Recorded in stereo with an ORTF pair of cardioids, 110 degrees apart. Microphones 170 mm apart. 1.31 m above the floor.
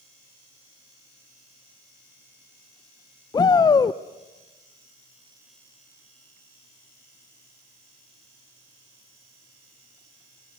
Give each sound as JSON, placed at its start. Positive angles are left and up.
{"t": 3.3, "sound": "a shout", "azimuth_deg": 25, "distance_m": 0.6}